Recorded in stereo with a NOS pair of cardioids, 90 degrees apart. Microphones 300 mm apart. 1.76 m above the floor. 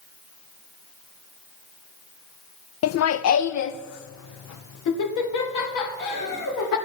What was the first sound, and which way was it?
Laughter, 50° left.